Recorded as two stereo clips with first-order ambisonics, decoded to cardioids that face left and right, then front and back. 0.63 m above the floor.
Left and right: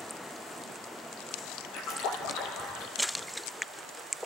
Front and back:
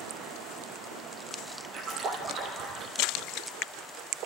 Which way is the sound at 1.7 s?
120° left.